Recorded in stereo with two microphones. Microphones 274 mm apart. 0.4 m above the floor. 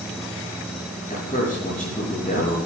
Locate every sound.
1.1 s a man speaking: 30° left (ahead or behind), 6 m